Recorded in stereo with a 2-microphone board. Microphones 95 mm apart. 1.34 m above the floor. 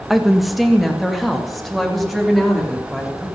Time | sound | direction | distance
0.1 | a woman speaking | centre (ahead or behind) | 1.2 m